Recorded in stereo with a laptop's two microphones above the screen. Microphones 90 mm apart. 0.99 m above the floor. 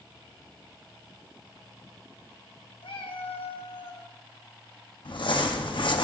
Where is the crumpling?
65° left (ahead or behind), 0.7 m.